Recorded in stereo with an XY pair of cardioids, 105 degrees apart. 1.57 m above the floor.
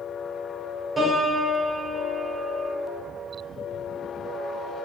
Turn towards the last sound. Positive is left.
turn(degrees=-20)